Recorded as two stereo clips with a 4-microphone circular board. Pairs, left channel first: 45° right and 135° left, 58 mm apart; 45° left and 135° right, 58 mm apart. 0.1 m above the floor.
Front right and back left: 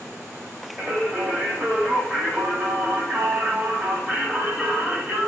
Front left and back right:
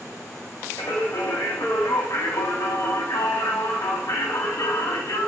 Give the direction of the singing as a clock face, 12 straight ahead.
10 o'clock.